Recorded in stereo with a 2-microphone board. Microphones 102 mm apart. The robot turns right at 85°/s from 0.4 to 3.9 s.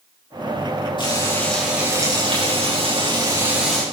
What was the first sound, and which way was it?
Frying, 125° left.